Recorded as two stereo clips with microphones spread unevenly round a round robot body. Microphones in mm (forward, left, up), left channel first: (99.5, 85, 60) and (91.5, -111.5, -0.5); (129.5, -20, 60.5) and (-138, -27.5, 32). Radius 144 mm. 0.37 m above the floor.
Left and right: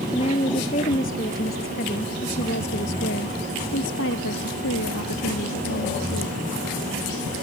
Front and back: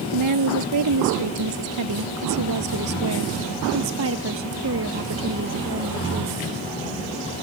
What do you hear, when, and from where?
0.1 s a woman speaking: 160° left; by 6.4 s 130° left